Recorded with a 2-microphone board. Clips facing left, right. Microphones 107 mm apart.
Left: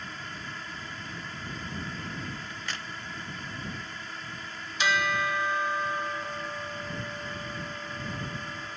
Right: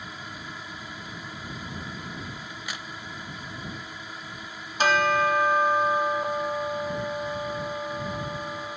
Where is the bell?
50° right (ahead or behind).